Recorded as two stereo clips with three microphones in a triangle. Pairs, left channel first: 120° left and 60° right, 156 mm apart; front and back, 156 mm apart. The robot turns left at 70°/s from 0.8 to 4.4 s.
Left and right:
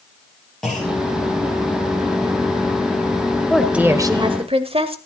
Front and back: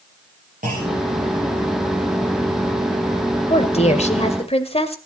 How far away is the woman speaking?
About 1.4 m.